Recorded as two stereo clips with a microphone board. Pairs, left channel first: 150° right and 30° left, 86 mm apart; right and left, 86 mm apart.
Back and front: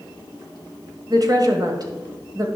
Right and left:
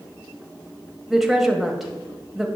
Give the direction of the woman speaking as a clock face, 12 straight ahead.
12 o'clock.